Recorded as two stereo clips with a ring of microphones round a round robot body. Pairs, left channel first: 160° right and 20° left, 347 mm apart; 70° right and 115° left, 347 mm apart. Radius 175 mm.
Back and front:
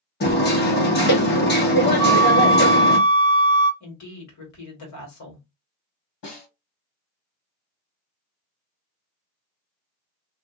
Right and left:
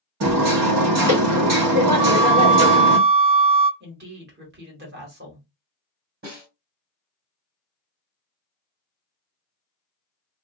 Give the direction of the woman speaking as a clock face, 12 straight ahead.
6 o'clock.